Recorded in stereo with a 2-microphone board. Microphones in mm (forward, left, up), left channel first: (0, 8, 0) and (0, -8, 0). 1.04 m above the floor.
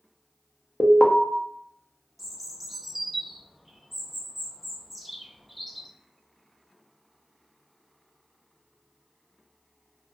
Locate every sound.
0.8 s an alarm: 25° left (ahead or behind), 0.6 m
2.2 s a bird: 10° right (ahead or behind), 0.5 m